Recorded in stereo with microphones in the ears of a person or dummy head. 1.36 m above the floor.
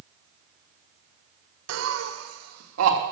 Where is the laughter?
80° right, 1.4 m; by 3.0 s 85° right, 3 m.